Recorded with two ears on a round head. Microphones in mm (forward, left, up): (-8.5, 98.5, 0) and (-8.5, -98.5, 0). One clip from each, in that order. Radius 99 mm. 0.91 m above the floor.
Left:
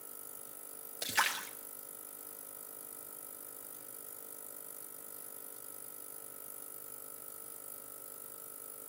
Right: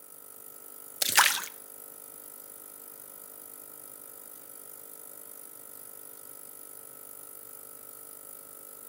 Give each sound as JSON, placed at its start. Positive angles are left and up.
{"t": 1.0, "sound": "a splash", "side_deg": -40, "distance_m": 0.6}